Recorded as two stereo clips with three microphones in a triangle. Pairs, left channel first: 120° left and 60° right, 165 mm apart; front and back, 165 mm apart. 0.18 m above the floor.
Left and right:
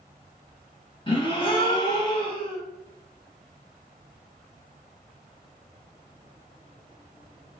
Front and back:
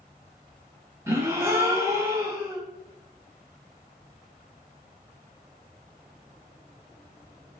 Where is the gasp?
125° left, 0.7 m.